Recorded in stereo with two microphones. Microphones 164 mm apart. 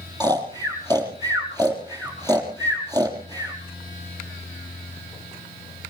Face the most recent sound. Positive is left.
turn(degrees=-25)  # may be behind; listen again after turning